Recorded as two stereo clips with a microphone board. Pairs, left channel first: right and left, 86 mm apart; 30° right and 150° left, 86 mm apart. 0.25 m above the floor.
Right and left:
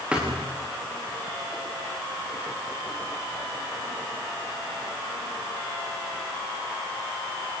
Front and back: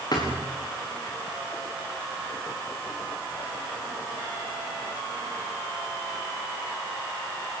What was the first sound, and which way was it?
A thud, 10° left.